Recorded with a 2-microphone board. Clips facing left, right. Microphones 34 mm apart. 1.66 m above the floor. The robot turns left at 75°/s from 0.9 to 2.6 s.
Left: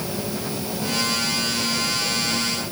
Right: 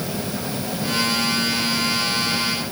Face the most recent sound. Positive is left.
No sound to turn to.